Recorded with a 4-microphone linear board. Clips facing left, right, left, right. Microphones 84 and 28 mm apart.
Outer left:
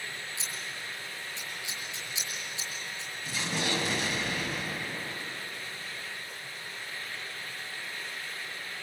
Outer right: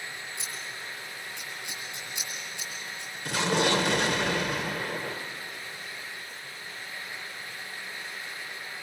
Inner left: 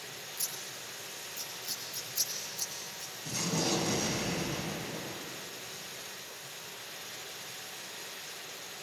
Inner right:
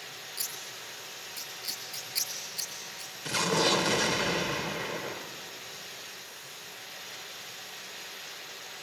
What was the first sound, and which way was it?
Scissors, 55° right (ahead or behind).